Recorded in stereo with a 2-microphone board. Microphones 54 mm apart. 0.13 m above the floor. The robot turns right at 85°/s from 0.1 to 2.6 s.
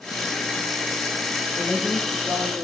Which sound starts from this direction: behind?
A woman speaking, at 1.6 s.